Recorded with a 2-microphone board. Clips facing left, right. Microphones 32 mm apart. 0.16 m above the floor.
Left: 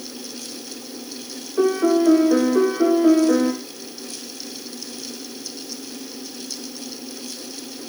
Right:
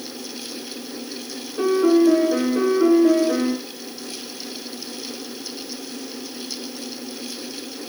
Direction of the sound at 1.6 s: 55° left (ahead or behind).